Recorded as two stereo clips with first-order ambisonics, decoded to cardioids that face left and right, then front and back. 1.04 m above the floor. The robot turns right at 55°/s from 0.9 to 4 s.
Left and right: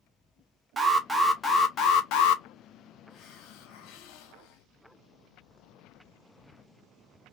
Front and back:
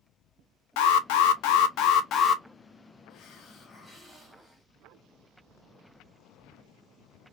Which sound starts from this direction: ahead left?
A hiss, at 3.1 s.